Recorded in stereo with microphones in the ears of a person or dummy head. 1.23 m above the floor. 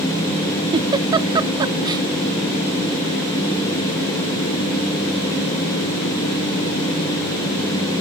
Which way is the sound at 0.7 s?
20° right (ahead or behind).